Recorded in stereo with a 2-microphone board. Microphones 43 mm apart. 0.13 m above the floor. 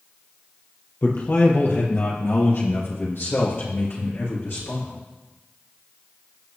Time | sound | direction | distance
1.0 | a man speaking | 55° left (ahead or behind) | 3.5 m